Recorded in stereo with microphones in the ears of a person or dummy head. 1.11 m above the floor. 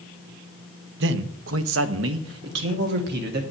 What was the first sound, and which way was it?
A man speaking, 70° right (ahead or behind).